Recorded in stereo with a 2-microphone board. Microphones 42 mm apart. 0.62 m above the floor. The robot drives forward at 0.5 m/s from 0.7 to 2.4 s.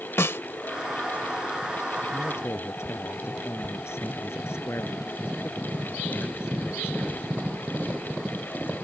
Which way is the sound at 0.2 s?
70° left (ahead or behind).